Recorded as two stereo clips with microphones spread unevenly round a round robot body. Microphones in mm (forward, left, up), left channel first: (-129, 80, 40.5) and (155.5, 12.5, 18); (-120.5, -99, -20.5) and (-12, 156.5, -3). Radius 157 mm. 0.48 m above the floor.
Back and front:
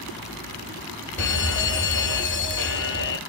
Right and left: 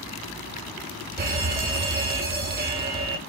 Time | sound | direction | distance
1.2 | an alarm | 120° left | 0.9 m